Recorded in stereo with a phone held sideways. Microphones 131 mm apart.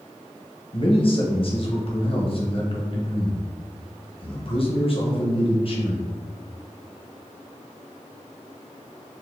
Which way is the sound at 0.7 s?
45° left (ahead or behind).